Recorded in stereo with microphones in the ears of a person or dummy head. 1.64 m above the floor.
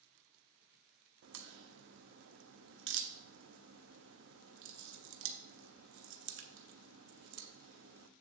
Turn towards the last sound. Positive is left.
turn(degrees=-60)  # may be behind; listen again after turning